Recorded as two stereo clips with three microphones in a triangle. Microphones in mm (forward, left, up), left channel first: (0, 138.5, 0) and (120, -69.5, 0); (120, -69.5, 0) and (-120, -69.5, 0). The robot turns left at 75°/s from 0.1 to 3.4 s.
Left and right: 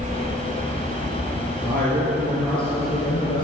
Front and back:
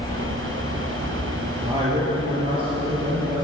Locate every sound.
1.6 s a man speaking: 100° right, 4.5 m; by 3.4 s 125° left, 4.5 m